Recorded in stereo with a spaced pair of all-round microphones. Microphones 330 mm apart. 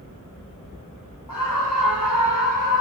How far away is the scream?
About 1.3 m.